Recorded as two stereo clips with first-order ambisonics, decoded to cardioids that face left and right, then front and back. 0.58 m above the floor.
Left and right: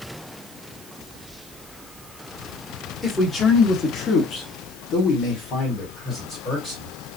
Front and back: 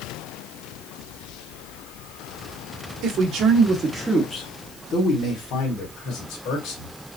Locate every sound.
3.0 s a man speaking: 155° left, 1.4 m; by 7.0 s 25° left, 2.5 m